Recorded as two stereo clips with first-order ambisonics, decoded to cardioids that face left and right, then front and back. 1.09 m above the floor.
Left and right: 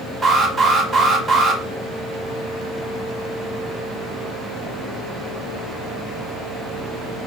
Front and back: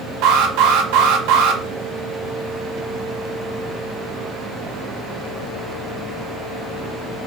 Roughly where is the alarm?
Behind.